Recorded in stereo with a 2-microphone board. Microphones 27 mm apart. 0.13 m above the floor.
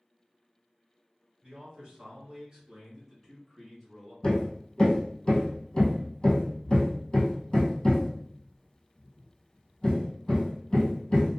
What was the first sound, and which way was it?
A man speaking, 40° right (ahead or behind).